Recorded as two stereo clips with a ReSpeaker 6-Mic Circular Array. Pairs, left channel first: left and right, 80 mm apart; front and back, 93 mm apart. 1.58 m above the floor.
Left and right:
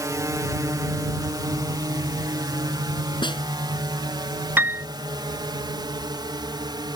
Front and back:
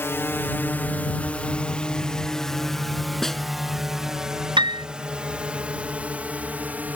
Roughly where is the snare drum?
Left.